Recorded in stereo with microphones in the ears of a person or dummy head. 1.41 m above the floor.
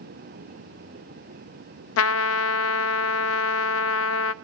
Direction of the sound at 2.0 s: 70° left (ahead or behind).